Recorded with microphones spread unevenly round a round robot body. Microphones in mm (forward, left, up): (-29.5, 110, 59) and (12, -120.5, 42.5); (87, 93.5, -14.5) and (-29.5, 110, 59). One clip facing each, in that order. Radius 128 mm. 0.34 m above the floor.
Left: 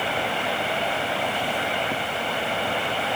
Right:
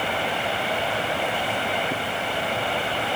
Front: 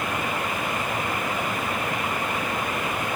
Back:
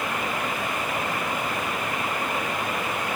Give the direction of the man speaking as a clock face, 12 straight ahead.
I don't hear a man speaking.